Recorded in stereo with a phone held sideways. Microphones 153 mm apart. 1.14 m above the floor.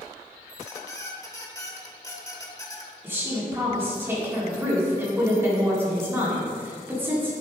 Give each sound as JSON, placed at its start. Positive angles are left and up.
{"t": 0.5, "sound": "a squeak", "side_deg": 20, "distance_m": 1.0}
{"t": 3.0, "sound": "a woman speaking", "side_deg": -15, "distance_m": 2.5}